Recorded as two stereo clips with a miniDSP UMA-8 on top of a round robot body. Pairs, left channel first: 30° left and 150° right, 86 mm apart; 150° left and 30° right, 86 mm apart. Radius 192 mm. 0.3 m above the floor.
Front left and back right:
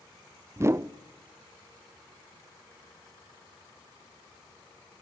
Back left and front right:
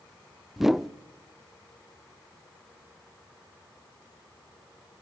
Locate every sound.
0.6 s a whoosh: 115° right, 0.7 m